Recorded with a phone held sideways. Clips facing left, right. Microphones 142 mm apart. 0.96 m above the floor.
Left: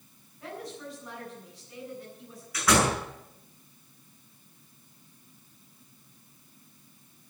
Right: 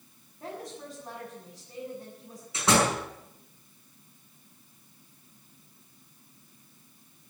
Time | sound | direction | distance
0.4 | a woman speaking | 30° right (ahead or behind) | 8.5 m
2.5 | a door slam | 25° right (ahead or behind) | 7.5 m